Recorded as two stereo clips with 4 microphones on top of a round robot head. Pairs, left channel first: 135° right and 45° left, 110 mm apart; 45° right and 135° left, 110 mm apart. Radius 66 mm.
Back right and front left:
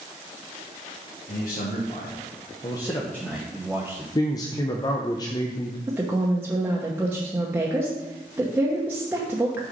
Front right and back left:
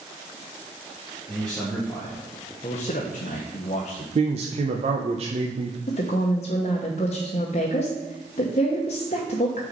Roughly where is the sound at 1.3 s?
Behind right.